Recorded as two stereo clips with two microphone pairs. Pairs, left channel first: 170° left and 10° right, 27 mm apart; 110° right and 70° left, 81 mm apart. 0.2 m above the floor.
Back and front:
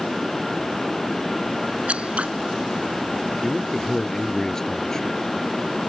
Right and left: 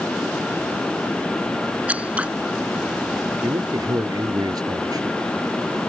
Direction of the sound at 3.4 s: 105° left.